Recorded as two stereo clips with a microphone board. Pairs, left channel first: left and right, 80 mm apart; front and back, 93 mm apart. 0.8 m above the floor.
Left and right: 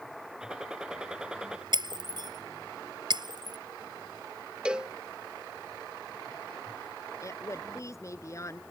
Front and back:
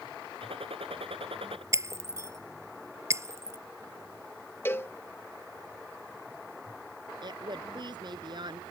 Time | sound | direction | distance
0.4 | a gunshot | 170° right | ?
1.7 | breaking glass | 120° right | ?
4.7 | a cowbell | 25° right | ?
7.2 | a woman speaking | 140° left | ?